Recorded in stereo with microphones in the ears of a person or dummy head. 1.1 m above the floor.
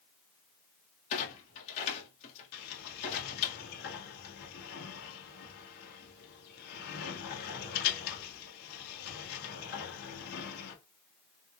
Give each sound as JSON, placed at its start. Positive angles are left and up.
{"t": 1.1, "sound": "a clunk", "side_deg": 35, "distance_m": 1.6}
{"t": 2.5, "sound": "a sliding door", "side_deg": 50, "distance_m": 1.5}